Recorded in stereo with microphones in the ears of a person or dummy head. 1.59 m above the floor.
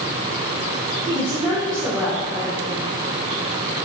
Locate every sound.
1.1 s a woman speaking: 30° right (ahead or behind), 0.6 m; by 2.9 s 5° left (ahead or behind), 1.6 m